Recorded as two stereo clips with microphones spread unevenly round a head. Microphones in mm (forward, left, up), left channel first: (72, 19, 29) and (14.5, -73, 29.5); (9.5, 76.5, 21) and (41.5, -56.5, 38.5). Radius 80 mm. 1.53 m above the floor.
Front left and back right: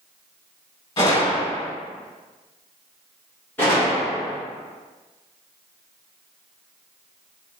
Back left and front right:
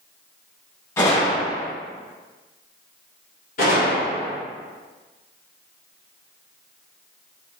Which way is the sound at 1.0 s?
35° left.